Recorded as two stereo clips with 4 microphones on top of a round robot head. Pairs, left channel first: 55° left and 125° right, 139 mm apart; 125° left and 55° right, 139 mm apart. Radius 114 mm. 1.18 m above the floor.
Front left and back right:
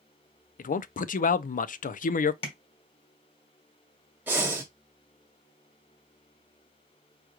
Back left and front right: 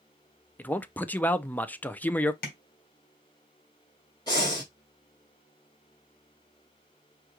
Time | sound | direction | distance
0.6 | a man speaking | 50° left | 0.5 m
2.4 | tapping | 105° left | 1.6 m
4.3 | breathing | 165° left | 0.7 m